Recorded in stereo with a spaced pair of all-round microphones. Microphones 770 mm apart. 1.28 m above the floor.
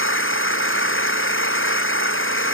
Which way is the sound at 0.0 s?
15° left (ahead or behind).